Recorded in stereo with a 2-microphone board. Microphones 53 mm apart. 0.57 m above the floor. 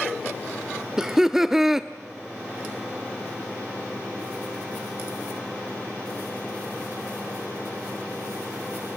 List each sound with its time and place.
1.0 s laughter: 10° right (ahead or behind), 0.7 m